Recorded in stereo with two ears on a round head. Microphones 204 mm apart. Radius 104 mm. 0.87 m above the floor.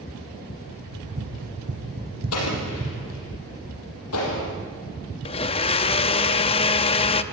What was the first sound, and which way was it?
Running footsteps, 65° right (ahead or behind).